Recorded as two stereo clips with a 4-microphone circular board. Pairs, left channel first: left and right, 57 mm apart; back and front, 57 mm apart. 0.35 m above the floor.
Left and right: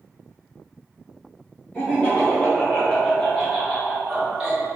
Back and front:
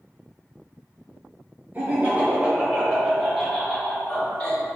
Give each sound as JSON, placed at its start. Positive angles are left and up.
{"t": 1.7, "sound": "laughter", "azimuth_deg": 30, "distance_m": 1.8}